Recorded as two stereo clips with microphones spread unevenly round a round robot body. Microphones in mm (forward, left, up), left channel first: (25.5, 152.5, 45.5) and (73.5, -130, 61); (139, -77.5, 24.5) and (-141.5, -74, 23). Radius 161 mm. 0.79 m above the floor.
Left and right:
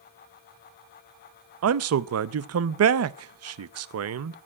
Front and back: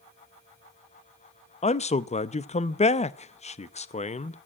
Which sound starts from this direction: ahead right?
A man speaking, at 1.6 s.